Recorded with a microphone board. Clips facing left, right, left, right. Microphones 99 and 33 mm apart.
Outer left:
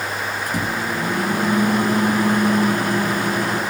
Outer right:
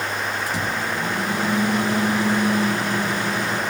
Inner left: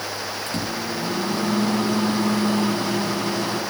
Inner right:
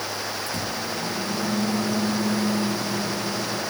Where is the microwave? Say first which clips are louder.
Outer left 2 dB, inner left 2 dB; 50° left (ahead or behind), 7.5 m.